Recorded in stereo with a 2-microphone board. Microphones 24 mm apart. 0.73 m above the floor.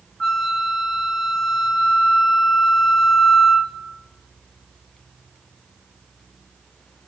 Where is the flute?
20° left (ahead or behind), 0.9 m.